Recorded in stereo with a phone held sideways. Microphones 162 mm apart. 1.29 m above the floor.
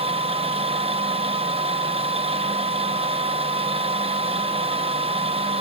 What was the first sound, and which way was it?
A machine running, 35° right (ahead or behind).